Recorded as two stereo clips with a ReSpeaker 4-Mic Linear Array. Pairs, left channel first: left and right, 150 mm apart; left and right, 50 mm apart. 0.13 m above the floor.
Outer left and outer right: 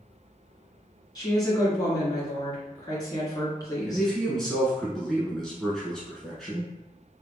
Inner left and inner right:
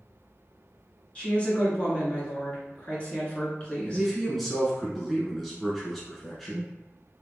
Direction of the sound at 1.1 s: 25° left (ahead or behind).